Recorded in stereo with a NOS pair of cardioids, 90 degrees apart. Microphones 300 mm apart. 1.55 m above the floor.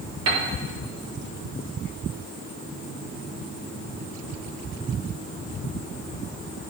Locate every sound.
0.3 s a piano: 55° right, 1.7 m